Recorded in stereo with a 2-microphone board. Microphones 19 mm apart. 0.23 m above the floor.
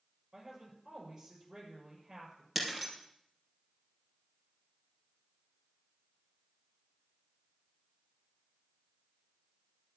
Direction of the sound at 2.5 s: 5° right (ahead or behind).